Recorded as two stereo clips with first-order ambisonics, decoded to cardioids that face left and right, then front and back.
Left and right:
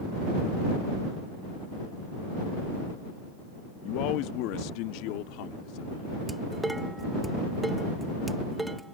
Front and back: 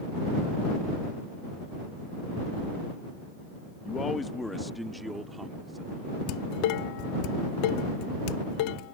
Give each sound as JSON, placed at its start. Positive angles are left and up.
{"t": 3.9, "sound": "a man speaking", "azimuth_deg": 60}
{"t": 6.3, "sound": "dishes clattering", "azimuth_deg": -5}